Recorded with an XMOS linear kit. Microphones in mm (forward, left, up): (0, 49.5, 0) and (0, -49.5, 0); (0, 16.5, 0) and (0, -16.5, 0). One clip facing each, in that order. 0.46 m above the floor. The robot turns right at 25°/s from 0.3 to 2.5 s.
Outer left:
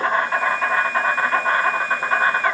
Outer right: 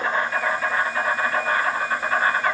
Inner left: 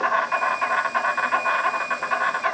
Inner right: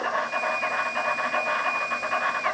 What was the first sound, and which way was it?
An insect, 95° left.